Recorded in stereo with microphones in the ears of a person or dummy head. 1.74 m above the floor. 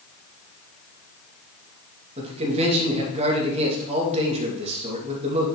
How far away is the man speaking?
About 2.5 m.